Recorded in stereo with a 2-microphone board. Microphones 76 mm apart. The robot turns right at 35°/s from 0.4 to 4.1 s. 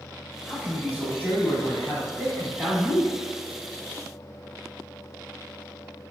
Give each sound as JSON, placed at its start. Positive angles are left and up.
{"t": 0.5, "sound": "a man speaking", "side_deg": 20, "distance_m": 1.0}